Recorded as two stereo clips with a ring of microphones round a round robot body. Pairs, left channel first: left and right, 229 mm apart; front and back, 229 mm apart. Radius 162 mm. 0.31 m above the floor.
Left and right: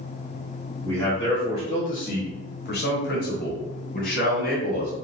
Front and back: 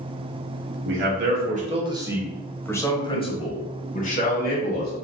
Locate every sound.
0.8 s a man speaking: 170° left, 1.6 m; by 4.9 s 45° left, 3 m